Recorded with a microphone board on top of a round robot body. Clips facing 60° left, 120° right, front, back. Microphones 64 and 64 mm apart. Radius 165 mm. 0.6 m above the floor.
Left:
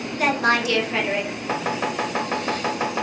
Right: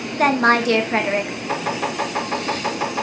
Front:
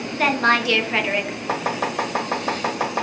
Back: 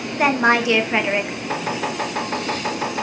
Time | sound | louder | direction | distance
0.2 | a woman speaking | right 4 dB, back 2 dB | 115° right | 0.8 m
1.5 | chopping | right 1 dB, front 2 dB | 10° right | 1.4 m